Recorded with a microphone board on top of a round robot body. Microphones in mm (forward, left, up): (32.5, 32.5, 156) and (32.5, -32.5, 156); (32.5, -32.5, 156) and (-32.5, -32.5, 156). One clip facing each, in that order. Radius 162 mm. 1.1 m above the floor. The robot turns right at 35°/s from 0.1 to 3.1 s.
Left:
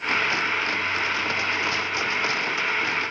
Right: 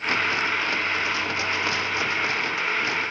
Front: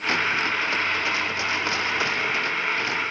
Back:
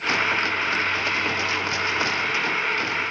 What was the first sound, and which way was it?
Only background noise.